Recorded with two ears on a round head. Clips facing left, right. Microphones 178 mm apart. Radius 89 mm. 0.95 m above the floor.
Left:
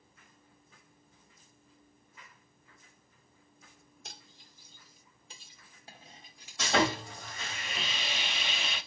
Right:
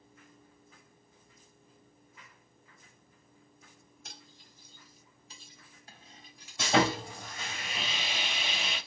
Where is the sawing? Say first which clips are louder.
Right 2 dB; 10° right (ahead or behind), 2.5 m.